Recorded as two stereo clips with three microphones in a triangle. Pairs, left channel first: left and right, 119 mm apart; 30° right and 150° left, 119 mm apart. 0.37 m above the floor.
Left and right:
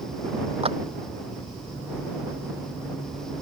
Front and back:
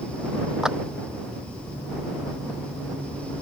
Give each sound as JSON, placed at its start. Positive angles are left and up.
{"t": 0.6, "sound": "a clap", "azimuth_deg": -125}